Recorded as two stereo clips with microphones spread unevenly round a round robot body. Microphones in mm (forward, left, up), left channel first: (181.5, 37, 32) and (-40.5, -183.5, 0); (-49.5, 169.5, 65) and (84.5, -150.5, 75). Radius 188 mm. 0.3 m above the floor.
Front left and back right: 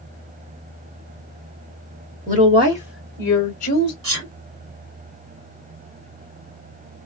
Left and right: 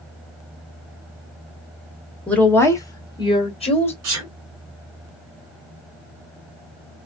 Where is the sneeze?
105° right, 3 m.